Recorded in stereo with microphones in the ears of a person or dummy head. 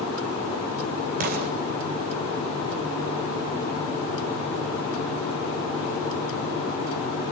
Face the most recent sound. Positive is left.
turn(degrees=-40)  # may be behind; listen again after turning